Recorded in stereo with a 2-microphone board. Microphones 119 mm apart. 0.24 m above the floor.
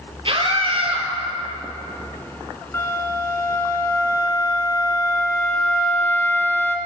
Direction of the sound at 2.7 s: 20° left (ahead or behind).